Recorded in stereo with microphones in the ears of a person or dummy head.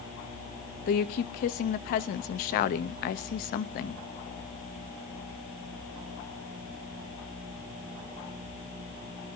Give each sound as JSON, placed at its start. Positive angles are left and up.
{"t": 0.9, "sound": "a woman speaking", "side_deg": 45, "distance_m": 0.6}